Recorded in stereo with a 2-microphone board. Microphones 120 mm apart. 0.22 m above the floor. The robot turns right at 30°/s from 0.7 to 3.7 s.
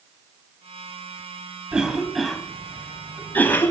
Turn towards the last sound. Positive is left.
turn(degrees=20)  # may be behind; listen again after turning